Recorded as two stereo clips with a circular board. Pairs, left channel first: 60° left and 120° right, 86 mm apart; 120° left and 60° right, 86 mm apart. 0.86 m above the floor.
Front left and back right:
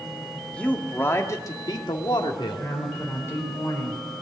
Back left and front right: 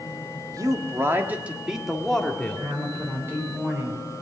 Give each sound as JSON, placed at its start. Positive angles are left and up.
{"t": 0.5, "sound": "a man speaking", "azimuth_deg": -15, "distance_m": 1.7}
{"t": 2.6, "sound": "a woman speaking", "azimuth_deg": 0, "distance_m": 4.0}